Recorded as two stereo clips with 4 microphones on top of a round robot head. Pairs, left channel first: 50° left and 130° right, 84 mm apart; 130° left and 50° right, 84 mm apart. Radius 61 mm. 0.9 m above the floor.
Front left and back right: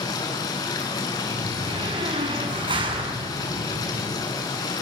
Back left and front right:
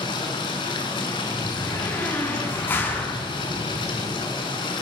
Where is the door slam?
160° right, 7 m.